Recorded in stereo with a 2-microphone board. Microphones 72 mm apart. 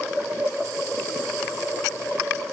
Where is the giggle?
I don't hear a giggle.